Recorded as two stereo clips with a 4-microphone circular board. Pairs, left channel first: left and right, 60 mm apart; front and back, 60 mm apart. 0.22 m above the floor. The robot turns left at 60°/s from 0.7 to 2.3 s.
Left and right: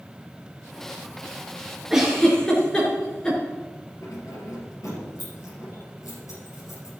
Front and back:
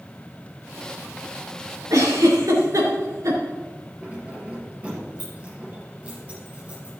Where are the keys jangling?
110° left, 4 m.